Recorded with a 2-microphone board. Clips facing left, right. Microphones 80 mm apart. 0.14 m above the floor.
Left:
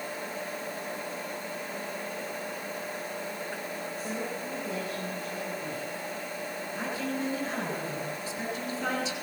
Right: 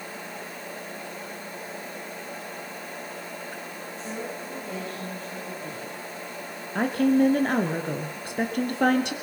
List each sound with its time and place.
4.0 s a woman speaking: 5° left (ahead or behind), 9 m
6.8 s a woman speaking: 60° right (ahead or behind), 3 m